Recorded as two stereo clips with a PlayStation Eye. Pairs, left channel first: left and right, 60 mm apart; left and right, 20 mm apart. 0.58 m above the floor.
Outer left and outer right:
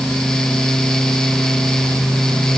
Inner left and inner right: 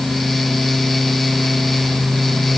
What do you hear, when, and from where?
Only background noise.